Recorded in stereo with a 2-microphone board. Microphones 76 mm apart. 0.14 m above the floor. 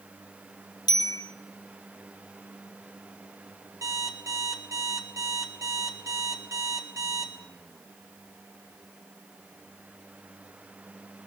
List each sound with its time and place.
0.9 s a bicycle bell: 65° left (ahead or behind), 2 m
3.8 s an alarm clock: 45° right (ahead or behind), 1.6 m